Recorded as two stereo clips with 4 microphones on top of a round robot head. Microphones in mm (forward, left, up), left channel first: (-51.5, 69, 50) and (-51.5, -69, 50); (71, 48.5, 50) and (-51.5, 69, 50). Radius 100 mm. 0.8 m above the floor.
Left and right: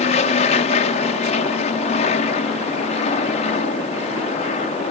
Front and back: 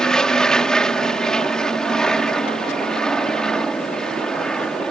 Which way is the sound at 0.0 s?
75° left.